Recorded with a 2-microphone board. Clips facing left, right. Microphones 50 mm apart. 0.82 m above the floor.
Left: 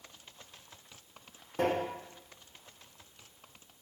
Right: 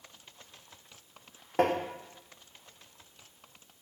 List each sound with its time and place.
1.6 s tapping: 60° right (ahead or behind), 0.5 m